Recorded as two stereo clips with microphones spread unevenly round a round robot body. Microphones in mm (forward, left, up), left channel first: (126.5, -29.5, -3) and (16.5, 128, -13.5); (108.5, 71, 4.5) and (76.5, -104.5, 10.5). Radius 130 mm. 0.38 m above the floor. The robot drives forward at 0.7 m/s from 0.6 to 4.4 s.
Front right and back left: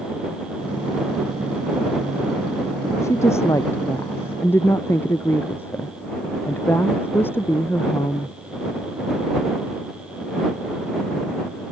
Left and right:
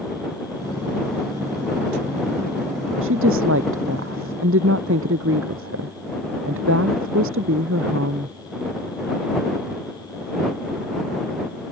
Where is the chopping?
No chopping in this recording.